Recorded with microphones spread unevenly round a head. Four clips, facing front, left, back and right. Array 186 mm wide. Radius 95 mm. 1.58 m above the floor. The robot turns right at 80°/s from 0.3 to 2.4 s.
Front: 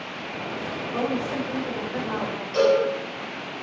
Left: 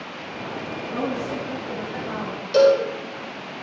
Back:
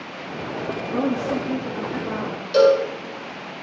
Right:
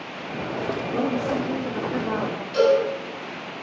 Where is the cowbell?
135° left, 4 m.